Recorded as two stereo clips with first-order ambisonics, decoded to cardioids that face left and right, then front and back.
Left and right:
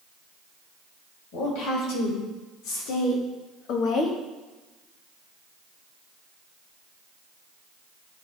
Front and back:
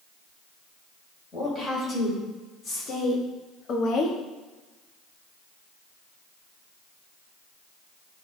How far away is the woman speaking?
About 3.5 m.